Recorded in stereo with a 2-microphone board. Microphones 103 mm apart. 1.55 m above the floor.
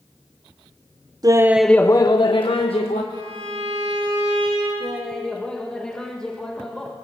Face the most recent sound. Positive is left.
turn(degrees=10)  # may be behind; listen again after turning